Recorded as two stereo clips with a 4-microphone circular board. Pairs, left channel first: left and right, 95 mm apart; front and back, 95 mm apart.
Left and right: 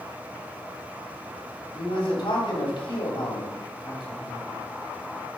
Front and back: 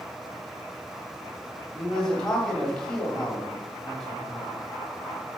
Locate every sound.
1.7 s a man speaking: 80° left, 3 m